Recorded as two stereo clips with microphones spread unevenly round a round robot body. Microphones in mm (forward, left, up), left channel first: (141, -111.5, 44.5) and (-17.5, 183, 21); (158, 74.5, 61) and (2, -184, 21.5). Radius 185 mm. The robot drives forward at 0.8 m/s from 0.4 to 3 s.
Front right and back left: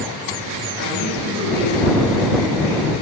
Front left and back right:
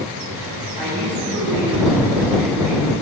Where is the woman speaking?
60° right, 4 m; by 2.9 s 85° right, 3.5 m.